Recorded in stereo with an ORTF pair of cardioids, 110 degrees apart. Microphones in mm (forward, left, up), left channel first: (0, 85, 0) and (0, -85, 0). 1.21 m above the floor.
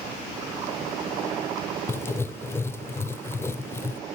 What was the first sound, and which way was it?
Writing, 15° left.